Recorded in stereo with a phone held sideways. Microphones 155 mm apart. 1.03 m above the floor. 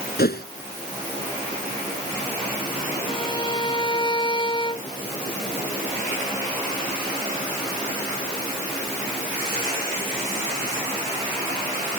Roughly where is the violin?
Left.